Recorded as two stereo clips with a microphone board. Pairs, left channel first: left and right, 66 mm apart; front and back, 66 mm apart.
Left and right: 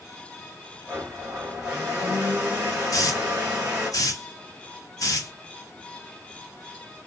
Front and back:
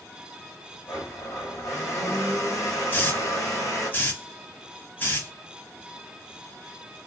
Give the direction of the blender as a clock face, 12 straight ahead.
1 o'clock.